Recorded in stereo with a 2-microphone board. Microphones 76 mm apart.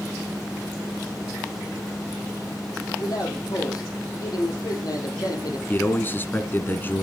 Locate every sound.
3.0 s a man speaking: 55° left (ahead or behind), 4 m
5.7 s a man speaking: 30° left (ahead or behind), 1.2 m